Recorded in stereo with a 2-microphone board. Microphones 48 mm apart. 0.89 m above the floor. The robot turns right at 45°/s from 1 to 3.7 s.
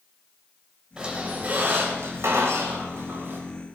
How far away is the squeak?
About 3 m.